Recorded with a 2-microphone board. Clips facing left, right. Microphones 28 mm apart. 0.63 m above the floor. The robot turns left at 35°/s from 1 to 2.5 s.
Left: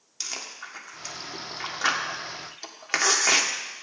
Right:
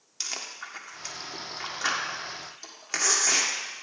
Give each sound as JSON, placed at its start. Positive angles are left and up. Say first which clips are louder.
{"t": 0.2, "sound": "chewing", "louder": "even", "side_deg": -5, "distance_m": 1.5}